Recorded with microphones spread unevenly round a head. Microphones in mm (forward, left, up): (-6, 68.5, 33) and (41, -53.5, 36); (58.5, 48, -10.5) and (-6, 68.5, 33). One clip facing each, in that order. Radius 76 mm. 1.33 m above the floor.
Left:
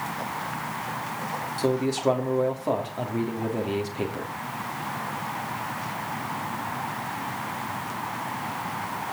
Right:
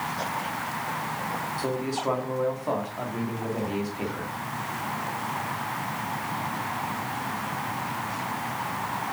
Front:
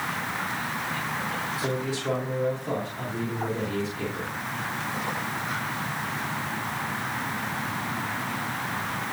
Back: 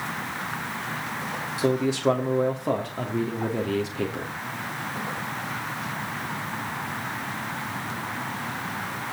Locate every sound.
1.6 s a man speaking: straight behind, 2.5 m